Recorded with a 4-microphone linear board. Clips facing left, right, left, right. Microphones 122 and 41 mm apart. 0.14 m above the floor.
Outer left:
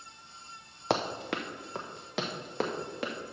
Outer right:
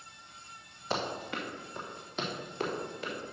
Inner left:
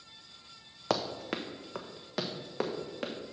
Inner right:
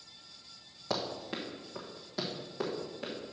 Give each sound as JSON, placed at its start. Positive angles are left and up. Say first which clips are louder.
{"t": 0.9, "sound": "running footsteps", "louder": "outer left 4 dB, inner left 3 dB", "side_deg": 75, "distance_m": 0.9}